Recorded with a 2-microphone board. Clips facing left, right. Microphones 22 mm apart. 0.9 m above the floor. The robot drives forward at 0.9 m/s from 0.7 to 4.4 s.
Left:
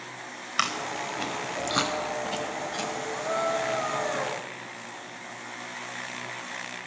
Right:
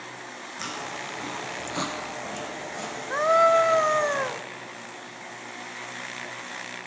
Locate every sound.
0.6 s chewing: 70° left (ahead or behind), 3.5 m; by 2.9 s 45° left (ahead or behind), 4.5 m
3.1 s a scream: 45° right (ahead or behind), 1.3 m; by 4.4 s 30° right (ahead or behind), 1.9 m